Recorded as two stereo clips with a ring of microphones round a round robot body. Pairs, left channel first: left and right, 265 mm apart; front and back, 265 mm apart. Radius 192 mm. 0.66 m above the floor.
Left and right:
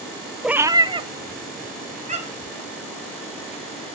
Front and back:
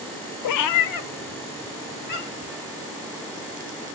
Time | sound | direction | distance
0.4 | a cat meowing | straight ahead | 0.6 m